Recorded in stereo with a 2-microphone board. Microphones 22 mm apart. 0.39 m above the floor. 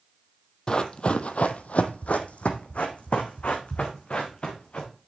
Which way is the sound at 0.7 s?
35° left (ahead or behind).